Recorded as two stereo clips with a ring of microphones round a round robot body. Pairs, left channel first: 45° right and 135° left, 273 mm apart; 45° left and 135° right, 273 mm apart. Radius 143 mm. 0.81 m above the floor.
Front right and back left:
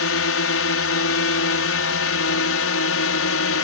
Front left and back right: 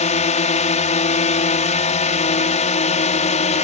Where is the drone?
15° right.